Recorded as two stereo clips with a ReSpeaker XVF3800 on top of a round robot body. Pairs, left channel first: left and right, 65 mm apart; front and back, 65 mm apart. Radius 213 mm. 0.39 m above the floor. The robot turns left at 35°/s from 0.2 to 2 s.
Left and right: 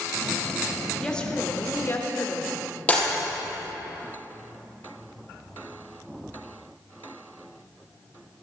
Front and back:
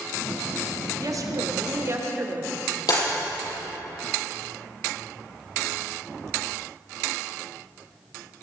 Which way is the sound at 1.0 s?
170° left.